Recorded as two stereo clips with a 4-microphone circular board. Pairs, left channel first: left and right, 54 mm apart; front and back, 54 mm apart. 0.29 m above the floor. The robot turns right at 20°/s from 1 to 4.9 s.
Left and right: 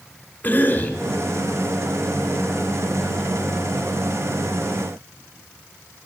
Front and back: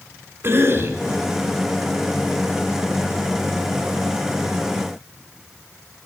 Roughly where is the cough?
Behind left.